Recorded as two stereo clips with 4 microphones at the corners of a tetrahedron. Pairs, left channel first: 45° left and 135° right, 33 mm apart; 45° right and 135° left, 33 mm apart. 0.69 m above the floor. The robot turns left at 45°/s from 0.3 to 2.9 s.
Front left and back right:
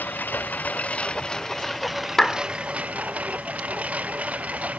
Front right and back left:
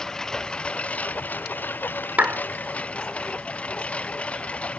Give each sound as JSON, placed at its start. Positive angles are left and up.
{"t": 0.0, "sound": "a lawn mower", "azimuth_deg": 25}
{"t": 2.2, "sound": "a clap", "azimuth_deg": 120}